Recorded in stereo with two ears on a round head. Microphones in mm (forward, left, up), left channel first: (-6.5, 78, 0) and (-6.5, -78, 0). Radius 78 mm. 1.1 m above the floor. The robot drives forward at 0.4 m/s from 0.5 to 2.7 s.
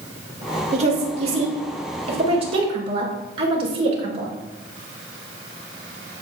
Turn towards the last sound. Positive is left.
turn(degrees=-35)  # may be behind; listen again after turning